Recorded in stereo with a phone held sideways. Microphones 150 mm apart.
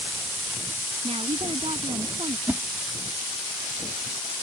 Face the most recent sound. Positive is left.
turn(degrees=-10)  # may be behind; listen again after turning